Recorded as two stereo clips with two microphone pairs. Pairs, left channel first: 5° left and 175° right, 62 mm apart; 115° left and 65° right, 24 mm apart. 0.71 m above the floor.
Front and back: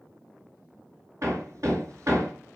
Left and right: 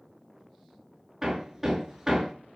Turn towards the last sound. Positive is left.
turn(degrees=-145)